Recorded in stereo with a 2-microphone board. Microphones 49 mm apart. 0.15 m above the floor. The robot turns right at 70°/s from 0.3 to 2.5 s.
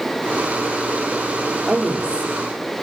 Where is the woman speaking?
10° right, 5 m; by 2.3 s 40° left, 5 m.